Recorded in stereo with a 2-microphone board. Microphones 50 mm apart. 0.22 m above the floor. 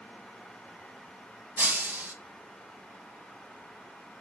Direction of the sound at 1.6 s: 45° right (ahead or behind).